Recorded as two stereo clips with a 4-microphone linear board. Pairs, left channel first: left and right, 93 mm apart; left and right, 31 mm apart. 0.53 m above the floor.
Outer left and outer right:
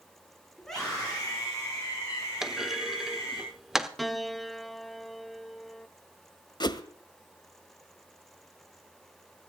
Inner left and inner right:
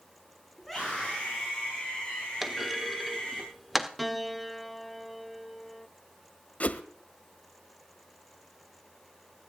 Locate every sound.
0.6 s a scream: 5° left (ahead or behind), 6 m; by 3.4 s 25° left (ahead or behind), 8.5 m
2.4 s a clunk: 5° right (ahead or behind), 1.1 m
4.0 s a piano: centre (ahead or behind), 0.7 m
6.6 s a whoosh: 50° left (ahead or behind), 1.3 m